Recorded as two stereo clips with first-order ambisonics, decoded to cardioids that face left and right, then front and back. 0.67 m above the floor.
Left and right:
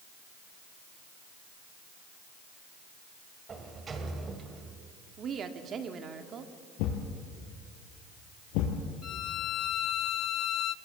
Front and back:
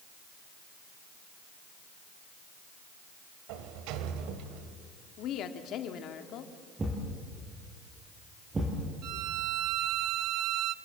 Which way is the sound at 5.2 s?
35° right.